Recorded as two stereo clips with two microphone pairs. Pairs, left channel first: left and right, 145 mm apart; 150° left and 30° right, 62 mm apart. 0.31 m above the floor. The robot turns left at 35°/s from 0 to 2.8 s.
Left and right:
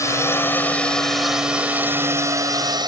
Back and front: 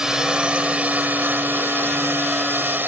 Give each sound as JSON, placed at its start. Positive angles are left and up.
{"t": 0.0, "sound": "a drone", "azimuth_deg": 45}